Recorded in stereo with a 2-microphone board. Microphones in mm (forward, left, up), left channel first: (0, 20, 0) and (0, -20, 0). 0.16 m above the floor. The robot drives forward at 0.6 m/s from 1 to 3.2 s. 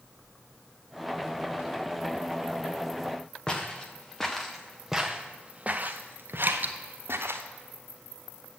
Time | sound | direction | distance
3.5 | footsteps | 20° left (ahead or behind) | 1.7 m
6.4 | dripping | 50° right (ahead or behind) | 0.8 m